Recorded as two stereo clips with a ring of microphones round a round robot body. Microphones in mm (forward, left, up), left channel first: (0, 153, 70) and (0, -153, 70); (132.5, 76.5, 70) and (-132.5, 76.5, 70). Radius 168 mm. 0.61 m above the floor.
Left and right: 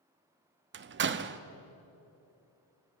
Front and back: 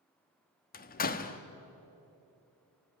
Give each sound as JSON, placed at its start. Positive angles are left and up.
{"t": 0.7, "sound": "a door slam", "azimuth_deg": -50, "distance_m": 0.8}